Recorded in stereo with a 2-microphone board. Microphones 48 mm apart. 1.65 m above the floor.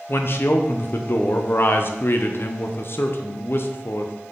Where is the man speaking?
50° left (ahead or behind), 0.7 m.